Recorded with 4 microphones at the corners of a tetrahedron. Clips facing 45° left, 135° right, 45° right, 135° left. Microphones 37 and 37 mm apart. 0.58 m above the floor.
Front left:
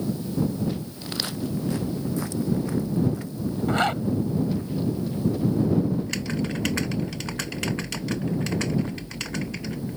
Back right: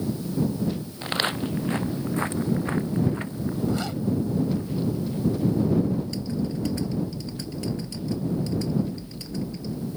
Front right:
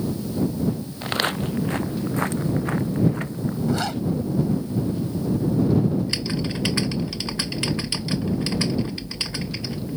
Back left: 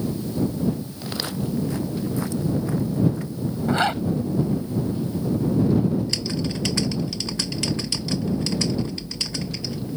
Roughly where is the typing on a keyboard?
Ahead.